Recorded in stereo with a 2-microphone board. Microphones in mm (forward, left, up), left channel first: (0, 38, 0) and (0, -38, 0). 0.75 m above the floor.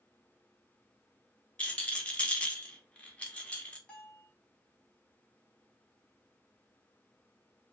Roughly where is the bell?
Centre.